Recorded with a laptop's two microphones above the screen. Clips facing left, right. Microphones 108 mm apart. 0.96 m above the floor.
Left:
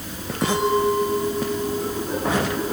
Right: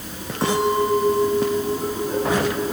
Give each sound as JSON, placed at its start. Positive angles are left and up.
{"t": 0.4, "sound": "a clink", "side_deg": -35, "distance_m": 8.5}